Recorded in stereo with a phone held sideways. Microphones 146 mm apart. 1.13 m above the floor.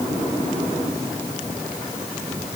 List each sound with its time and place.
Only background noise.